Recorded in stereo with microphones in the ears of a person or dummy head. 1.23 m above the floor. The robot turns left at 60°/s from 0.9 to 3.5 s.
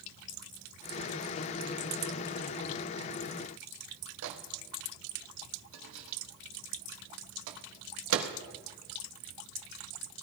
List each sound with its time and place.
4.2 s a microwave: 80° right, 1.3 m